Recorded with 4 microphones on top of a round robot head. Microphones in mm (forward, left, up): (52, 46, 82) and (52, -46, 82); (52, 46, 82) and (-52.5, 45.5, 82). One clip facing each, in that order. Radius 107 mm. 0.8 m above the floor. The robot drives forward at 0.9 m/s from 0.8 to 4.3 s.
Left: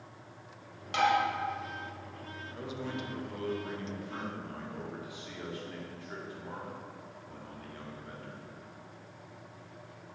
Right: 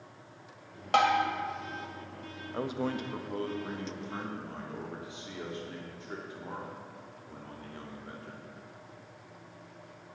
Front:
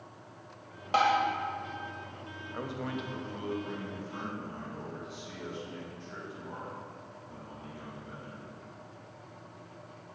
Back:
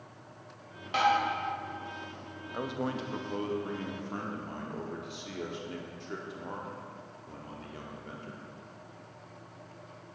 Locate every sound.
0.9 s tapping: 55° right, 1.8 m; by 1.2 s 65° right, 1.7 m
2.5 s a man speaking: 100° right, 0.9 m; by 8.4 s 160° right, 1.9 m